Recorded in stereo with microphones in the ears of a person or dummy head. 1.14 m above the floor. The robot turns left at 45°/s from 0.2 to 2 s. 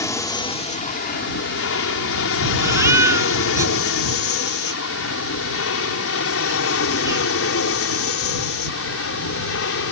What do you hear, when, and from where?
0.0 s an aircraft: 20° left (ahead or behind); by 9.9 s 70° left (ahead or behind)
2.6 s a baby crying: 15° right (ahead or behind)